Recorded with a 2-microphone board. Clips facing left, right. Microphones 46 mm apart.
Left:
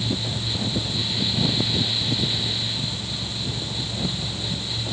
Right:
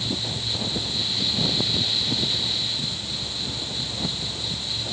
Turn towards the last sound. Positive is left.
No sound to turn to.